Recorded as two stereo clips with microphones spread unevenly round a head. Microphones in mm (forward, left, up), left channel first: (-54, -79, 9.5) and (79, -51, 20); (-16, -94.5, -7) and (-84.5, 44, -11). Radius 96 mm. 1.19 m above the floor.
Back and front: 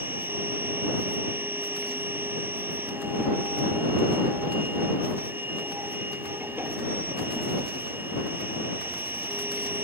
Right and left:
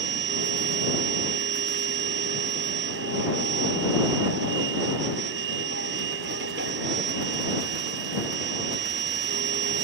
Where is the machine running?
90° left.